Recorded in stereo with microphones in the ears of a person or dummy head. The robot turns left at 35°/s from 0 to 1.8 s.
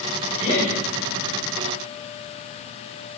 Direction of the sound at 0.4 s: 30° left (ahead or behind).